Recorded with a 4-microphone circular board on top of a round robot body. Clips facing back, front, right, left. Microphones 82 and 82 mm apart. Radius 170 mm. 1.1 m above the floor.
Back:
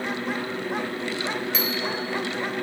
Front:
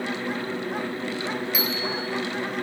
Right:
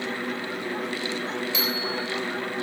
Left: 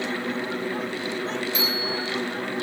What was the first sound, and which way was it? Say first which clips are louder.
A bicycle bell: even, left 1 dB; 80° right.